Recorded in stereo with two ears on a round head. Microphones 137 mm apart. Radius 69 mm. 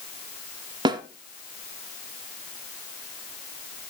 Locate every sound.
0.8 s a snare drum: 30° right (ahead or behind), 1.2 m